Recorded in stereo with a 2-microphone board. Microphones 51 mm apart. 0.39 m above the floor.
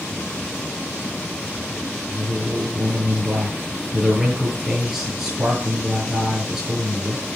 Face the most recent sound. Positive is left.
turn(degrees=-10)  # may be behind; listen again after turning